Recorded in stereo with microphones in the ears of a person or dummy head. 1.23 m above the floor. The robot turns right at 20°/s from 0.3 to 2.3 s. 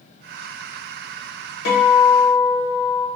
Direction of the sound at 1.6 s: 75° left (ahead or behind).